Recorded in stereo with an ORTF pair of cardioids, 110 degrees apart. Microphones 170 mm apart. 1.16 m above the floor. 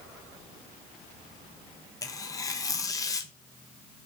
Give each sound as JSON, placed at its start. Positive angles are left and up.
{"t": 2.0, "sound": "tearing paper", "azimuth_deg": 20, "distance_m": 0.6}